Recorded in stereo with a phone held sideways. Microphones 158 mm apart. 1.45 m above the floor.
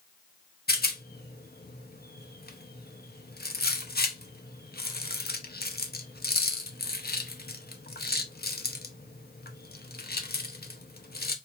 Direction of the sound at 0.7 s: 80° left.